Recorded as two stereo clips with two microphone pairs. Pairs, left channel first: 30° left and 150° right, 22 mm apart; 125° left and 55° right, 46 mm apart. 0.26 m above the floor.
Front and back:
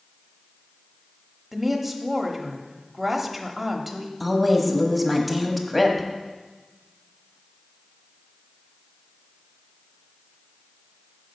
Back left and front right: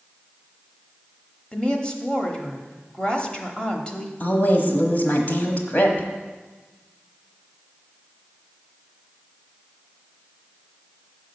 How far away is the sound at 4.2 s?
About 1.2 m.